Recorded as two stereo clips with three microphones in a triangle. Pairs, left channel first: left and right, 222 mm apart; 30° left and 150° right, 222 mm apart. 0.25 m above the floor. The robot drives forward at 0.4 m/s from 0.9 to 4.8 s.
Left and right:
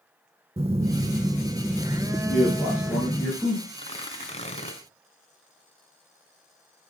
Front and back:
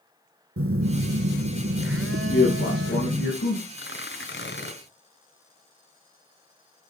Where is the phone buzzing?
155° right, 0.6 m; by 3.3 s 170° right, 1.5 m.